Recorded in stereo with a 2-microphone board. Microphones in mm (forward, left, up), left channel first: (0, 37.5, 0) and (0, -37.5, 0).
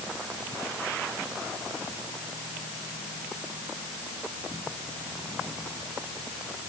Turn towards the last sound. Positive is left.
No sound to turn to.